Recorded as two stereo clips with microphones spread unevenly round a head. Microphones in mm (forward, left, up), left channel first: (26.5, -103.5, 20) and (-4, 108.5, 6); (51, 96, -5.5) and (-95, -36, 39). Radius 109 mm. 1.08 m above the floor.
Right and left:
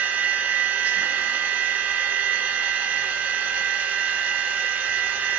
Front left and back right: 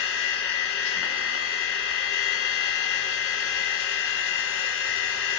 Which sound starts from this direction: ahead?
A machine running, at 0.0 s.